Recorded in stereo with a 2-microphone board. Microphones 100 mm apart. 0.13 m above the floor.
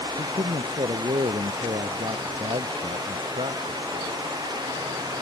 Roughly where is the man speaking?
Right.